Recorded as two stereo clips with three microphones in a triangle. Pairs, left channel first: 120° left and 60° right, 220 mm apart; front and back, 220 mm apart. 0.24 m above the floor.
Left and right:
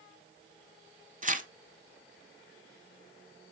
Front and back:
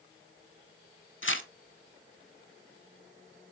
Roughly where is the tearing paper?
Ahead.